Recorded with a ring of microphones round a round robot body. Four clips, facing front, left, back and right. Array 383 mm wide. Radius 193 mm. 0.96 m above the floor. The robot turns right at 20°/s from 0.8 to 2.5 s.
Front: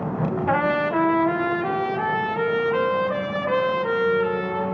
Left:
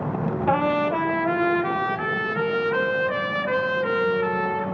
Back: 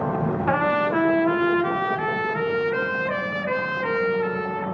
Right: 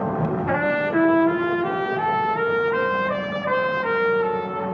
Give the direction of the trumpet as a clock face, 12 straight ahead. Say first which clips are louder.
Left 3 dB, even; 8 o'clock.